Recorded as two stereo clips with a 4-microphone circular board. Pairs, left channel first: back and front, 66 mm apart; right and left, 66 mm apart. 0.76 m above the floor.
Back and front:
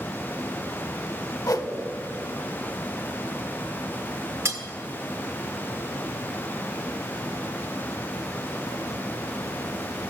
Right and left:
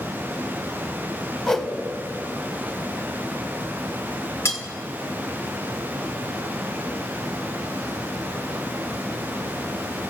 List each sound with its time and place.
1.5 s a whoosh: 170° right, 0.9 m
4.5 s cutlery clinking: 40° right, 1.4 m